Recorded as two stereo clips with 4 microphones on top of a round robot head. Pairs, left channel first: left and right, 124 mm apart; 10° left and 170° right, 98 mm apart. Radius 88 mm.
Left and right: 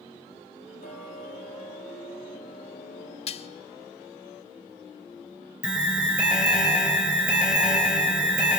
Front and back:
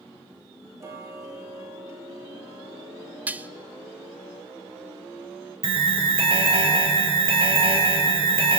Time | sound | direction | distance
0.8 | ticking | 130° left | 2.5 m
3.3 | dishes clattering | 120° left | 0.9 m
5.6 | an alarm | 175° right | 3.5 m